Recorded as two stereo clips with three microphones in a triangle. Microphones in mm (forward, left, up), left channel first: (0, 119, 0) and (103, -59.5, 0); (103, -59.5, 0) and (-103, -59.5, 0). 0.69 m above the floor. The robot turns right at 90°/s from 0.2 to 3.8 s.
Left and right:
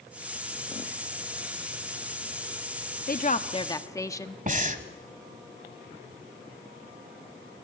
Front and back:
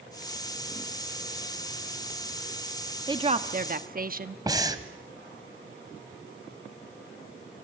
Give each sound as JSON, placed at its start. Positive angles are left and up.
{"t": 3.1, "sound": "a woman speaking", "azimuth_deg": 120, "distance_m": 1.1}
{"t": 4.5, "sound": "breathing", "azimuth_deg": -110, "distance_m": 1.4}